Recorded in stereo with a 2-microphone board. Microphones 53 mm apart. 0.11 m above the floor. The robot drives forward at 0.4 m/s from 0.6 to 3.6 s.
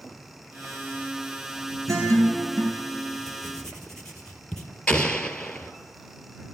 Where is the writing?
10° left (ahead or behind), 3 m.